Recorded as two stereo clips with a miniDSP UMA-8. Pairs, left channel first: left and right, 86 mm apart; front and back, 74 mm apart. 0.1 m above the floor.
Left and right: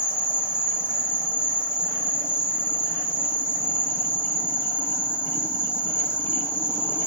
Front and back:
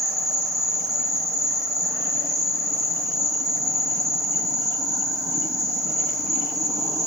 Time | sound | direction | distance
0.0 | an insect | 150° left | 1.3 m